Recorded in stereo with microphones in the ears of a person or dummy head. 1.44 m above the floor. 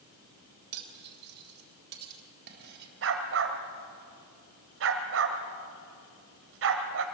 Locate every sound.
0.7 s cutlery clinking: 50° right (ahead or behind), 3.5 m
3.0 s a dog barking: 60° right (ahead or behind), 2 m